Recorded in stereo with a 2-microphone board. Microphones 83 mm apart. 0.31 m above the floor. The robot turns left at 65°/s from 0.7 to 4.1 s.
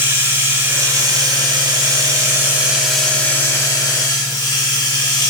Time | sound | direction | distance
0.0 | running water | 35° right | 0.9 m